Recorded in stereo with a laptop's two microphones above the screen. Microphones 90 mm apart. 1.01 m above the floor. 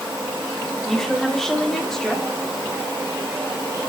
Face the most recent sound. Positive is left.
turn(degrees=5)  # may be behind; listen again after turning